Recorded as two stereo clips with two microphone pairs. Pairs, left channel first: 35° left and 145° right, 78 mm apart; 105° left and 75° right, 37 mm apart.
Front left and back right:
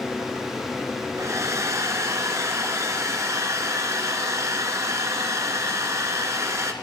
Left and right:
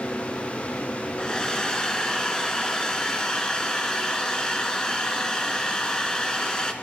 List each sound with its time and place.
1.2 s a hair dryer: 170° left, 1.0 m